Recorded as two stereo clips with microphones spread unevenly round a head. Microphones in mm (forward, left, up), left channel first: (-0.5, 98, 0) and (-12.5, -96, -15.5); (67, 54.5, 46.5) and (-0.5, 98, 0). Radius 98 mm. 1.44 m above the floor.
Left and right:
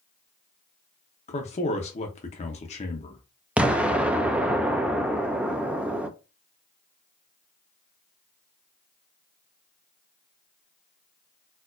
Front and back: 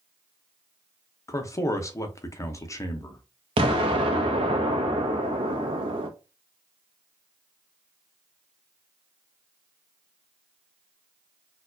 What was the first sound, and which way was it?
A man speaking, 25° left.